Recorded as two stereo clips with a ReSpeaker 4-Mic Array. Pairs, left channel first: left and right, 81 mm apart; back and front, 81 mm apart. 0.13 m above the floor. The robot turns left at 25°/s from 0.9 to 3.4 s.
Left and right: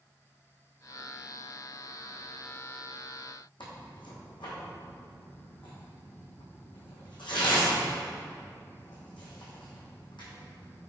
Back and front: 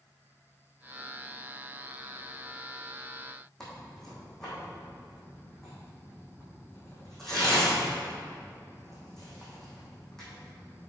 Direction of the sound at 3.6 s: 95° left.